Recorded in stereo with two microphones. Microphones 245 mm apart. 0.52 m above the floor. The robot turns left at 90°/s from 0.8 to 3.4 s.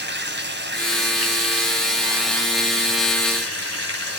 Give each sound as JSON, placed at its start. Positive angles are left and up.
{"t": 0.0, "sound": "running water", "azimuth_deg": -50, "distance_m": 3.0}